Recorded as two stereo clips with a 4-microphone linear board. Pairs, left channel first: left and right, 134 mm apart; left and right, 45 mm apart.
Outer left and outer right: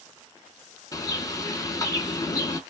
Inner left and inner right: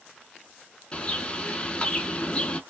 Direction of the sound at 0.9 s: 25° left (ahead or behind).